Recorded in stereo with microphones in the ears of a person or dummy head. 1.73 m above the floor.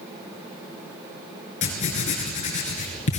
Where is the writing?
35° left (ahead or behind), 5.5 m.